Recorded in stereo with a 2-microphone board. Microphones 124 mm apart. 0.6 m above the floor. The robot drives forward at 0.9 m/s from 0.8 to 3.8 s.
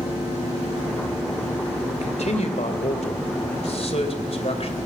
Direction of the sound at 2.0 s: 65° left (ahead or behind).